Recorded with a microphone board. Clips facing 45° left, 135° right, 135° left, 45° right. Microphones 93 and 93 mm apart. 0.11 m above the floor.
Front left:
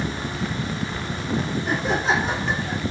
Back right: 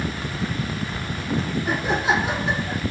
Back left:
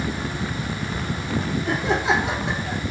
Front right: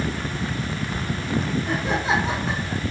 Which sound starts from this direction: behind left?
Laughter, at 1.6 s.